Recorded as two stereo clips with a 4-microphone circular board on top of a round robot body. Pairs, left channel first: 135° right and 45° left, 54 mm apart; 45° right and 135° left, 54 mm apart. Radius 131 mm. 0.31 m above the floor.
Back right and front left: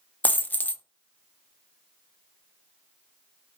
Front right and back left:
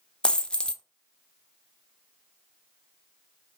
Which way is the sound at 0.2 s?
105° right.